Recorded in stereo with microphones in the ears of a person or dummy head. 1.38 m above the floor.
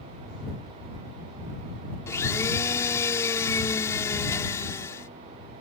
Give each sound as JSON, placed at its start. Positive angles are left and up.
{"t": 2.1, "sound": "a blender", "side_deg": 15}